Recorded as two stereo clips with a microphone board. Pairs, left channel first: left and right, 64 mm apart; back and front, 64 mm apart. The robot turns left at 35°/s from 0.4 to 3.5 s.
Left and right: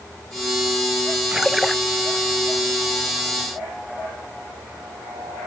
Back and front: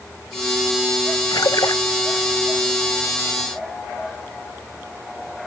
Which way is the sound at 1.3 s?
170° right.